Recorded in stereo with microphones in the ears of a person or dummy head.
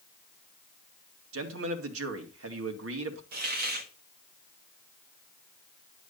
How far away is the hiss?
About 1.7 m.